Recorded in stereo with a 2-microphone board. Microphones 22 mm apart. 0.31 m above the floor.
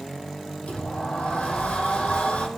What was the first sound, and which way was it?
A sliding door, 70° left (ahead or behind).